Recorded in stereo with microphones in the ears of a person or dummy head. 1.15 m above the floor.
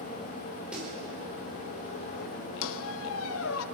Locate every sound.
0.7 s a snare drum: centre (ahead or behind), 5 m
2.6 s a squeak: 75° left (ahead or behind), 0.8 m